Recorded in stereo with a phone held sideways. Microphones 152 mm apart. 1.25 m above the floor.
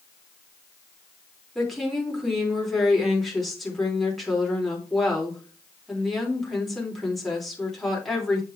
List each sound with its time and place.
1.6 s a woman speaking: centre (ahead or behind), 3.5 m